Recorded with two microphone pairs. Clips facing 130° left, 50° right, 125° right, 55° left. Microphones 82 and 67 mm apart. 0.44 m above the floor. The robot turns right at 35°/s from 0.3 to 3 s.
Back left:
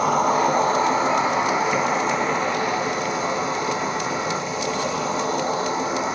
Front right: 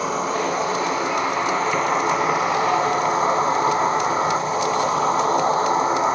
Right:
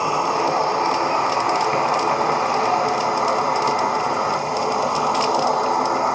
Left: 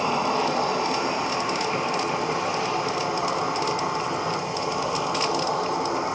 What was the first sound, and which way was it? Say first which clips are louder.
An insect: back left 4 dB, right 4 dB; 160° left.